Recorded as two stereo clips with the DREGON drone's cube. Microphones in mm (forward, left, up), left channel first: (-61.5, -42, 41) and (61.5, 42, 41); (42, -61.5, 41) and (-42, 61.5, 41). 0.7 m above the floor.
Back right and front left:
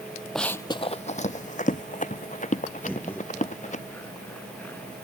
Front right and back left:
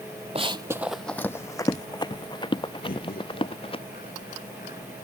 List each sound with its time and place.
0.3 s running footsteps: 125° left; by 3.8 s 110° right
2.8 s laughter: 70° right